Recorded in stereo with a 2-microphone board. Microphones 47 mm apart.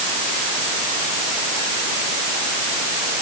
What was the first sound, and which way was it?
Only background noise.